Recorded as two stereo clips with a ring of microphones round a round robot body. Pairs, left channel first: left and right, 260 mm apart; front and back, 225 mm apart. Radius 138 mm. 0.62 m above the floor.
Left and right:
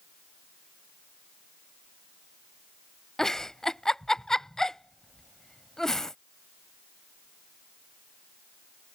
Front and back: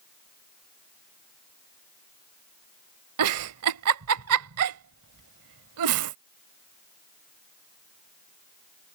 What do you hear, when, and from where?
3.2 s a giggle: straight behind